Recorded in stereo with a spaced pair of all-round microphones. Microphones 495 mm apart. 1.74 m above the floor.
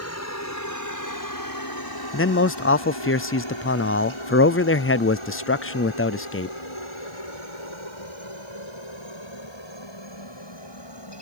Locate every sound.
0.0 s a helicopter: 30° left (ahead or behind); by 11.2 s 55° left (ahead or behind)
2.1 s a man speaking: 25° left (ahead or behind)